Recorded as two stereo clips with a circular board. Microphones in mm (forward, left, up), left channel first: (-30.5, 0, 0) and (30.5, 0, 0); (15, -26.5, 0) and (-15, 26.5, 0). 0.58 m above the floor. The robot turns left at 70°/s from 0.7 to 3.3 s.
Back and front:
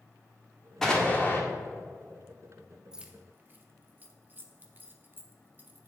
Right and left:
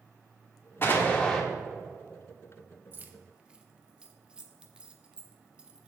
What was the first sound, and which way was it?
An explosion, 100° right.